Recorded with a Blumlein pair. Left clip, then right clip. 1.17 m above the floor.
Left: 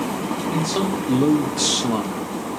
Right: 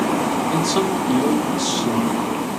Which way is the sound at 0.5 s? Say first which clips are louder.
Right 4 dB; 10° right.